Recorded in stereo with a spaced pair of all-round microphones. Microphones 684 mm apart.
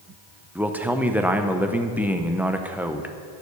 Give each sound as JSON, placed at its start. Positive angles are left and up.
{"t": 0.6, "sound": "a man speaking", "side_deg": -5, "distance_m": 0.5}